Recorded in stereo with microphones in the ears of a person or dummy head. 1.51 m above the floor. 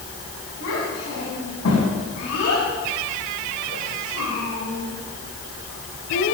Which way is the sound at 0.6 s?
60° left (ahead or behind).